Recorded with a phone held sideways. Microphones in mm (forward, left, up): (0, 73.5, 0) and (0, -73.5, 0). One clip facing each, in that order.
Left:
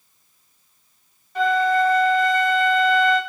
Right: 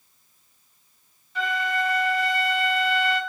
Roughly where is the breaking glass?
No breaking glass in this recording.